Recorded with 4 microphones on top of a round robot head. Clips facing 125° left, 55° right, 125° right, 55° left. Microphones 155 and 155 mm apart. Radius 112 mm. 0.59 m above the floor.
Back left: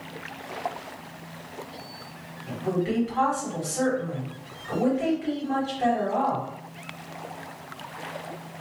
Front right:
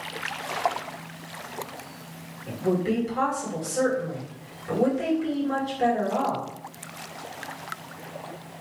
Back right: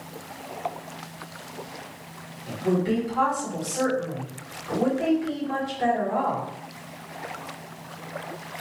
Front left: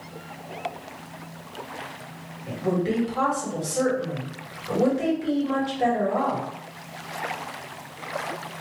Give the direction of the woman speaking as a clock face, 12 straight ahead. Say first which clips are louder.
Front right 2 dB, back right 1 dB; 12 o'clock.